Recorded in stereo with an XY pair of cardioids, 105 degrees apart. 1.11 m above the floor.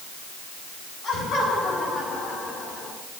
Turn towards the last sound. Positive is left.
turn(degrees=70)